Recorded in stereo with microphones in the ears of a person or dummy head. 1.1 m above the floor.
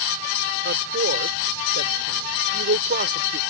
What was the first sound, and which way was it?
A woman speaking, 45° right (ahead or behind).